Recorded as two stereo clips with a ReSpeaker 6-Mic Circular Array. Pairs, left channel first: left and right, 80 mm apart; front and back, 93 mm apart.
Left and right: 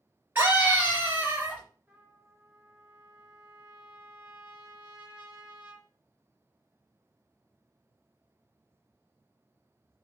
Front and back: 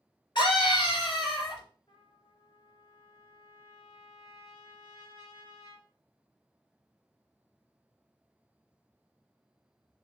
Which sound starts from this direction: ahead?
A trumpet, at 1.9 s.